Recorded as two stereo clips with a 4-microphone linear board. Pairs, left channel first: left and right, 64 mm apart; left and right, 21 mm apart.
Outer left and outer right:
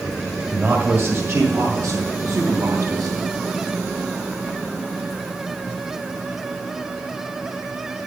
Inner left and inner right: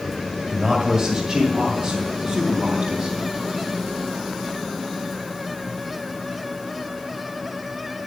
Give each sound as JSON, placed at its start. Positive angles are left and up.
{"t": 0.5, "sound": "a man speaking", "side_deg": -20, "distance_m": 1.9}